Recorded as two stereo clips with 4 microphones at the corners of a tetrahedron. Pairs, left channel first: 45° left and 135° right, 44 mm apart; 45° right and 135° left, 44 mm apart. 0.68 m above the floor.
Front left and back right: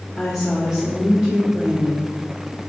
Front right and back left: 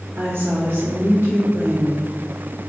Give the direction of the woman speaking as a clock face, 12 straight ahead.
8 o'clock.